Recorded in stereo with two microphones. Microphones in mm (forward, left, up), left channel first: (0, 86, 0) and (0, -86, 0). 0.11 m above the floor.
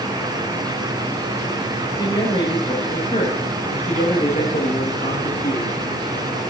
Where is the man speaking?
20° left (ahead or behind), 8.5 m; by 5.7 s 55° left (ahead or behind), 9 m.